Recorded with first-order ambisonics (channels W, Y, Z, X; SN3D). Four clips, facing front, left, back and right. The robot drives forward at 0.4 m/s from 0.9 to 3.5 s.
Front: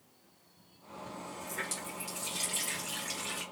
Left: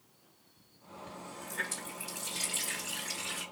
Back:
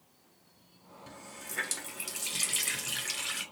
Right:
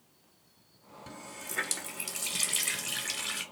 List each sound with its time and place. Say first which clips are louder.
1.1 s a running tap: right 2 dB, front 3 dB; 100° right, 1.3 m; by 3.4 s 135° right, 1.8 m